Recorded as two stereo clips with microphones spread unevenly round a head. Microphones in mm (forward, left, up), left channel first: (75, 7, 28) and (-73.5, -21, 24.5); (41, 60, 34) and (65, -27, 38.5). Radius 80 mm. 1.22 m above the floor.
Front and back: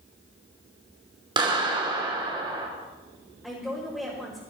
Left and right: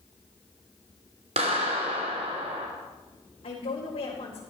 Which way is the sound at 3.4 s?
105° left.